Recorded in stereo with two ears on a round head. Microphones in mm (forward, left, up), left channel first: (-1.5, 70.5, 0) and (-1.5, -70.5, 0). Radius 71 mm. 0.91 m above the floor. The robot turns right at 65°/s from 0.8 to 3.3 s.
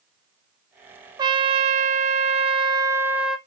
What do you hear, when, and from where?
1.2 s a trumpet: 140° right, 0.9 m; by 3.4 s 5° right, 0.9 m